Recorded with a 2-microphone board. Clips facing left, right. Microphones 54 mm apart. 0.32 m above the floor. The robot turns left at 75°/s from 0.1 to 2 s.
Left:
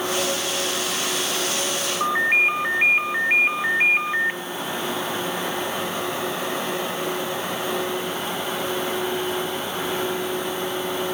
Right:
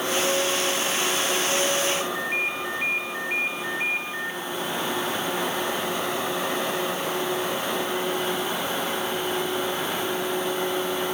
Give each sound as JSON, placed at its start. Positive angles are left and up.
{"t": 2.0, "sound": "a ringtone", "side_deg": 55, "distance_m": 1.5}